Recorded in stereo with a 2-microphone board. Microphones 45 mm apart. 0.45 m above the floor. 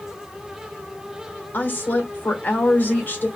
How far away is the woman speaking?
About 1.1 m.